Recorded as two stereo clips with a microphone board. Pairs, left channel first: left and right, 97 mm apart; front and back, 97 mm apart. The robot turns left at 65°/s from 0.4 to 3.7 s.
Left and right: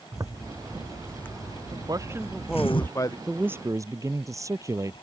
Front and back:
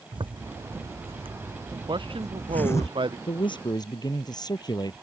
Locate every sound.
0.1 s a zipper: 145° right; by 2.9 s 55° left
1.9 s a man speaking: 140° right; by 3.2 s 140° left
3.3 s a man speaking: 10° right; by 5.0 s 35° right